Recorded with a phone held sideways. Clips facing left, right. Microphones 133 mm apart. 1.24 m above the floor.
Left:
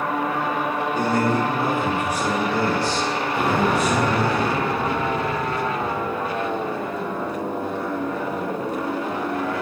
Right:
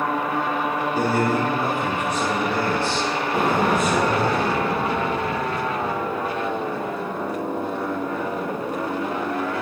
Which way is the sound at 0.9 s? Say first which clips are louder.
Even; 10° right (ahead or behind).